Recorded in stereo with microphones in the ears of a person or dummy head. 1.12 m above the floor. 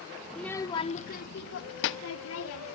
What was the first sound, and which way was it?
A child speaking, centre (ahead or behind).